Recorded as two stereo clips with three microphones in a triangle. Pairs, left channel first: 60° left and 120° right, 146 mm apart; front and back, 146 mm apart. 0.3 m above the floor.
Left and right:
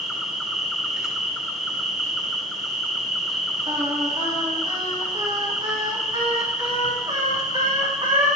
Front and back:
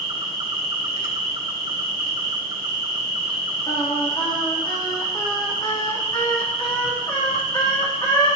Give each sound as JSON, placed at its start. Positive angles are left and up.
{"t": 0.0, "sound": "an insect", "azimuth_deg": 150, "distance_m": 1.7}
{"t": 3.7, "sound": "singing", "azimuth_deg": -60, "distance_m": 4.0}